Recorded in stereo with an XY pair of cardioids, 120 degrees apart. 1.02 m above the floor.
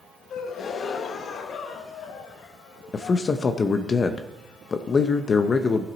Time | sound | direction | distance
0.3 | a gasp | 55° left | 1.0 m
2.9 | a man speaking | 35° left | 0.6 m